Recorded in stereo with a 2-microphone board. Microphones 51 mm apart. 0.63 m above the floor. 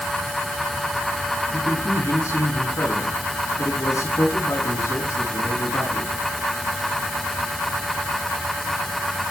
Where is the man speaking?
70° left (ahead or behind), 7.5 m.